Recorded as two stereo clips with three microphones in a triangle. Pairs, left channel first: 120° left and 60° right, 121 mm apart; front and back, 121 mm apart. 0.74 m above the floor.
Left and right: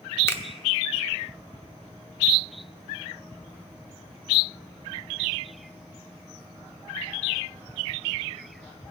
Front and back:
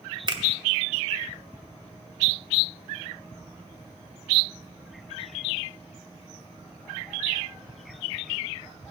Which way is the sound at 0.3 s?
175° left.